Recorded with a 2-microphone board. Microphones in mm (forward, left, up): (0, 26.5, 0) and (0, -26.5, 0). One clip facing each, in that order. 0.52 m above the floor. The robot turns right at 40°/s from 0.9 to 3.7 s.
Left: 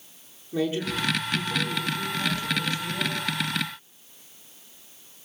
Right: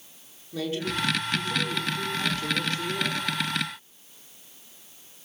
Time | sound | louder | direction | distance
0.5 | a man speaking | left 3 dB | 165° left | 8 m